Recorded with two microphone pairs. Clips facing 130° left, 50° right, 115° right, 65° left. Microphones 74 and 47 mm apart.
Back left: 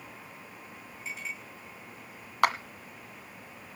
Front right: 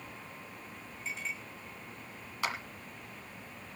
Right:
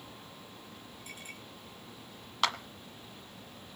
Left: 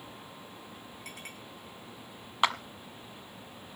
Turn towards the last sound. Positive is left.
turn(degrees=130)